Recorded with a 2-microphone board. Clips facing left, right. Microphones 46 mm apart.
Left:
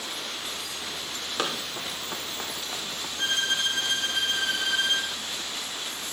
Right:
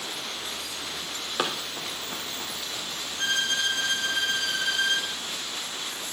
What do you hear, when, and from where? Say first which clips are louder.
1.4 s running footsteps: right 1 dB; 10° right (ahead or behind), 1.3 m; by 3.1 s 45° left (ahead or behind), 1.7 m
3.2 s a violin: even; 20° left (ahead or behind), 1.5 m